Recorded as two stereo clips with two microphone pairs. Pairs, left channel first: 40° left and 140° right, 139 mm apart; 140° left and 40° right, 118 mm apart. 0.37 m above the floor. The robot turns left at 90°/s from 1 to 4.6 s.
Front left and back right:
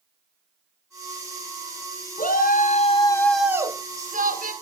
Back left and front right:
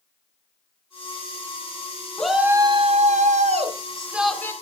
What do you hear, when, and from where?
2.2 s a shout: 55° left, 3 m; by 4.5 s 155° right, 3 m